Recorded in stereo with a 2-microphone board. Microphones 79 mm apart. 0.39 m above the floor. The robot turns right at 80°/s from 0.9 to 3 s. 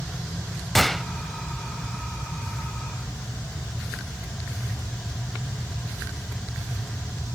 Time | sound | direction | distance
0.8 | a gunshot | 5° left (ahead or behind) | 0.6 m